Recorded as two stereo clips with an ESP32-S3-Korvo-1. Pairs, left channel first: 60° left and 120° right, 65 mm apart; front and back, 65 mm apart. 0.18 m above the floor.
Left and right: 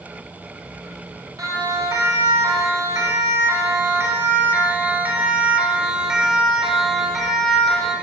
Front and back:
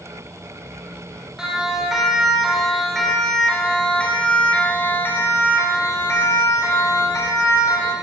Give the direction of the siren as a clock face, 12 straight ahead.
3 o'clock.